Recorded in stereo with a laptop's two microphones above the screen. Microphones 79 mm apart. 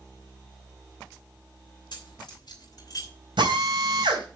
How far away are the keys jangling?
About 3 m.